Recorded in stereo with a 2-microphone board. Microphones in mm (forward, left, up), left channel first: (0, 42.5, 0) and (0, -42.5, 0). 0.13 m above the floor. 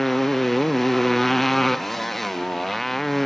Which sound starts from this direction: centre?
A motorcycle, at 0.0 s.